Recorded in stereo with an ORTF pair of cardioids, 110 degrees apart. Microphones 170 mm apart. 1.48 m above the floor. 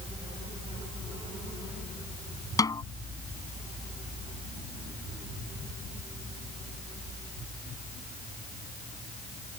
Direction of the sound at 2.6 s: 20° left.